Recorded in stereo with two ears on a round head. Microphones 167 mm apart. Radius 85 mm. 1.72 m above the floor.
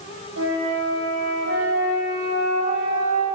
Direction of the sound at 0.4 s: 65° right (ahead or behind).